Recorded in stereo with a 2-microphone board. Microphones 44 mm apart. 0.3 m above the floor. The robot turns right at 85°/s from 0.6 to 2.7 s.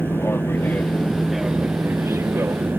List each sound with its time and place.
0.0 s an aircraft: 55° left (ahead or behind); by 2.8 s 50° right (ahead or behind)